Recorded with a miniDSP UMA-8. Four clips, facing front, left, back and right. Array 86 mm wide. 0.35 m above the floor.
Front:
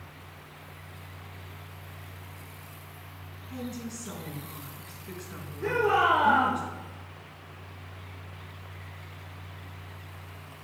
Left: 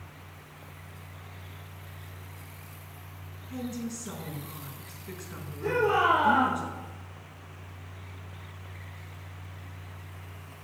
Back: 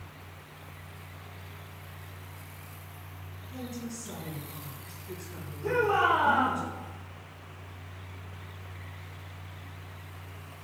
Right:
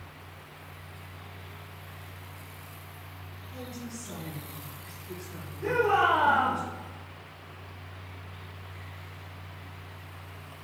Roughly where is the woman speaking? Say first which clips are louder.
Left 6 dB, front 2 dB; ahead left.